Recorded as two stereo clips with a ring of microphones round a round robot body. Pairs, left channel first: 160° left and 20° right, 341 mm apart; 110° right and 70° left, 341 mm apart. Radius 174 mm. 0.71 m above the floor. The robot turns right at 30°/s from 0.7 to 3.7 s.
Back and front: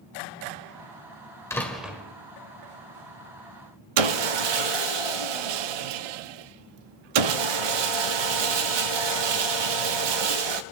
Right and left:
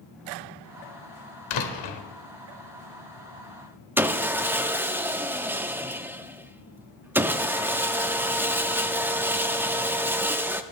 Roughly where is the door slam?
Behind right.